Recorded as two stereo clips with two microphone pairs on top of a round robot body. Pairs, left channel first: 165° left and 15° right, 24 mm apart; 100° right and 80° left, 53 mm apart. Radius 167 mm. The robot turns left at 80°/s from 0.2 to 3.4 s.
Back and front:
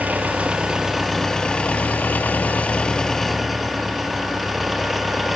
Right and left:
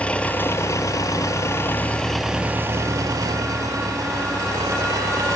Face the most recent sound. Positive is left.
turn(degrees=70)